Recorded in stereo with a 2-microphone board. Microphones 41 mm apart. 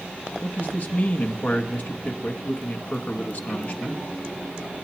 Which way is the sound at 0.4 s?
45° left (ahead or behind).